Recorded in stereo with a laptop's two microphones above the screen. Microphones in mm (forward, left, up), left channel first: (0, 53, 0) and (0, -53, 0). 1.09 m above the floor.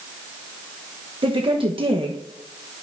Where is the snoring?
I don't hear snoring.